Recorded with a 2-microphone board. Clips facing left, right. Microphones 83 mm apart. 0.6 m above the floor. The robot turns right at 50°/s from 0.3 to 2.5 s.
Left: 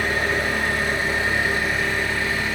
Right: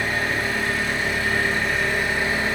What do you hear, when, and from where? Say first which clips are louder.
0.0 s an engine running: left 2 dB; 110° left, 0.7 m; by 2.5 s 140° right, 0.7 m